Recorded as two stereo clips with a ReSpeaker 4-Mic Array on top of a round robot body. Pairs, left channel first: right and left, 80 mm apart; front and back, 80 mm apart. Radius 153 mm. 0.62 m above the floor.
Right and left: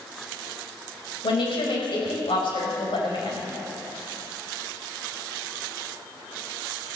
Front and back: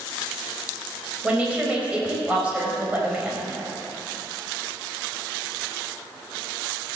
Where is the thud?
No thud in this recording.